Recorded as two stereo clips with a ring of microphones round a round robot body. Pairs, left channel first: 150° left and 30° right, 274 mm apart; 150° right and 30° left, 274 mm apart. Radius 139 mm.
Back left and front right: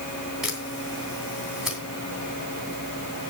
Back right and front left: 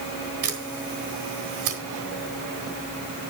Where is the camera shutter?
60° left, 3 m.